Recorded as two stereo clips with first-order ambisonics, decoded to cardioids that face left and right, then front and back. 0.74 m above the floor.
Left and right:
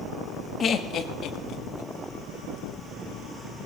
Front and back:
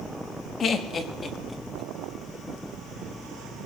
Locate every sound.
0.6 s laughter: 45° left, 1.1 m; by 1.9 s 80° left, 1.4 m